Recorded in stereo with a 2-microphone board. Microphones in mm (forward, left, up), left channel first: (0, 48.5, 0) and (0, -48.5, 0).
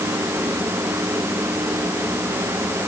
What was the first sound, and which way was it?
Only background noise.